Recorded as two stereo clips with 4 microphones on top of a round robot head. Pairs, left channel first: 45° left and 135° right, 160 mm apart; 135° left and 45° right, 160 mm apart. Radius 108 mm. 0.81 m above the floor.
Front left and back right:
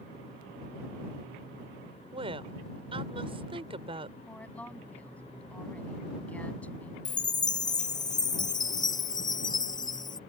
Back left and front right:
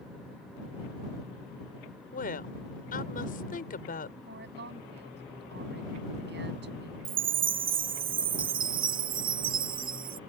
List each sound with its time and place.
2.1 s a woman speaking: 170° left
4.3 s a woman speaking: 35° right
7.0 s a chime: 15° right